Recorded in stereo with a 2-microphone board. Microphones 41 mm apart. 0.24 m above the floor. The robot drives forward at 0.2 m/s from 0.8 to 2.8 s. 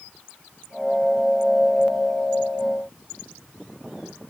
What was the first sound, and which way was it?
Only background noise.